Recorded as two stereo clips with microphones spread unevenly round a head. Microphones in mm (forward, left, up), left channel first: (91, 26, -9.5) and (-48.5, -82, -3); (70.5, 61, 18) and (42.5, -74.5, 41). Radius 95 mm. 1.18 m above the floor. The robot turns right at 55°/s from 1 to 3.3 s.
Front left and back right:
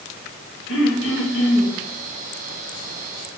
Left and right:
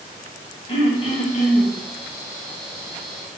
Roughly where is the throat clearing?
Ahead left.